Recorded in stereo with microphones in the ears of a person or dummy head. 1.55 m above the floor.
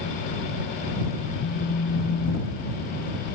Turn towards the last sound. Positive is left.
turn(degrees=60)  # may be behind; listen again after turning